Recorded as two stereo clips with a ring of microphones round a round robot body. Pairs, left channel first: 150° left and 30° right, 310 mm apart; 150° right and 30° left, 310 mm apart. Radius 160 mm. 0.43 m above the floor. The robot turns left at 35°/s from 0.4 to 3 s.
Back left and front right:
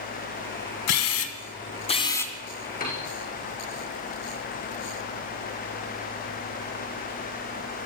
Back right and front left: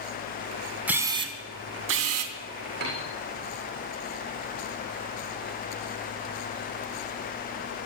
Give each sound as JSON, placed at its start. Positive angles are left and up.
{"t": 0.9, "sound": "a camera shutter", "azimuth_deg": 115, "distance_m": 2.0}
{"t": 2.8, "sound": "a piano", "azimuth_deg": 90, "distance_m": 6.5}